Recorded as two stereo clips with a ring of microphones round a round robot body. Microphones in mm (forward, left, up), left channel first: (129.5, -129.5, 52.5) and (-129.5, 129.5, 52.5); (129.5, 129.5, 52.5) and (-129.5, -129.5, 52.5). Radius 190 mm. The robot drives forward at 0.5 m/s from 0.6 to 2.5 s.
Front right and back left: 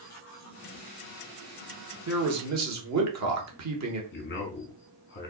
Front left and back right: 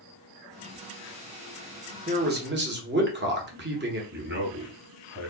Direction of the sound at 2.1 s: 165° left.